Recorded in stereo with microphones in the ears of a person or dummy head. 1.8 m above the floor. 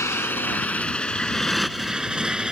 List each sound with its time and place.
0.0 s a motorcycle: 15° left (ahead or behind); by 2.5 s centre (ahead or behind)